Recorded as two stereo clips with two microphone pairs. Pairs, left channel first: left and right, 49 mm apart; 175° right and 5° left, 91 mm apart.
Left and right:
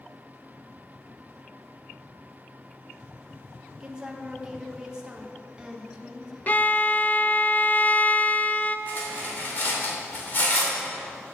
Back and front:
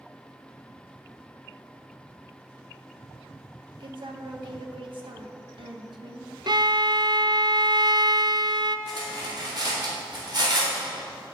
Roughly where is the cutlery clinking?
Ahead left.